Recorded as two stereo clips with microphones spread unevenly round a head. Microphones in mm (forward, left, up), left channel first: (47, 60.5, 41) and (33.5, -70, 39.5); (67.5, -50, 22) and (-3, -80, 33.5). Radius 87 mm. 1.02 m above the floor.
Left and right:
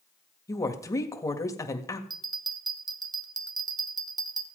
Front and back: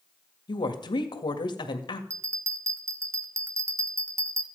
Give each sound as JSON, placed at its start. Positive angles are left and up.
{"t": 0.5, "sound": "a woman speaking", "azimuth_deg": 20, "distance_m": 1.7}
{"t": 2.1, "sound": "a bell", "azimuth_deg": -125, "distance_m": 0.9}